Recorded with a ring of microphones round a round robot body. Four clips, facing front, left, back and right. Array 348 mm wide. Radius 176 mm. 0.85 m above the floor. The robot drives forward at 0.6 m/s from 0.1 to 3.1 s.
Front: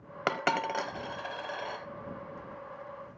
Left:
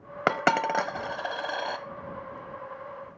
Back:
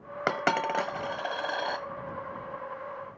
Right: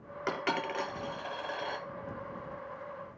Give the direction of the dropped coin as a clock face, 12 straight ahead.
9 o'clock.